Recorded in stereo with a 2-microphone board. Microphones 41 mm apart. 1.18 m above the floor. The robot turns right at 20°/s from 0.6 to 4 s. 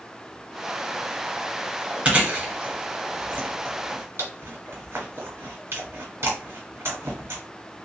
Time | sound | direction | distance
2.0 | chewing | 25° right (ahead or behind) | 1.4 m